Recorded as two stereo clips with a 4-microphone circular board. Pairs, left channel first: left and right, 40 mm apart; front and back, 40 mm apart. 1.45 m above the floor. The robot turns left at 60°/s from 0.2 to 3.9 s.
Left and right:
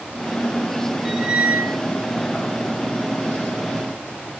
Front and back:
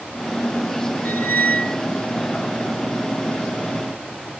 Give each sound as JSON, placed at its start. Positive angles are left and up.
{"t": 1.1, "sound": "a squeak", "azimuth_deg": -10, "distance_m": 1.1}